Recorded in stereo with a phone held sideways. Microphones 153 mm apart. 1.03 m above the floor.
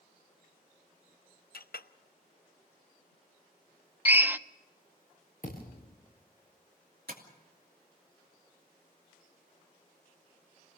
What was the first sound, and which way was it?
A clink, 80° left.